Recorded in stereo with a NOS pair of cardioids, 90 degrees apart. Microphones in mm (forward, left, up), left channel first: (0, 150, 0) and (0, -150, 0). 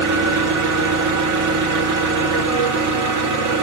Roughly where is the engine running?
Ahead right.